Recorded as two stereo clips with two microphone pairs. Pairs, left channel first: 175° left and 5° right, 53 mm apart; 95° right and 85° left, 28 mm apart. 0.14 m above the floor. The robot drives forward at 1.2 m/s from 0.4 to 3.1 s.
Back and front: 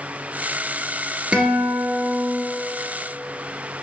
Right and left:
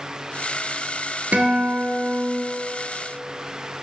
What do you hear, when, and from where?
1.3 s a guitar: 60° left, 1.4 m; by 2.4 s 125° left, 1.5 m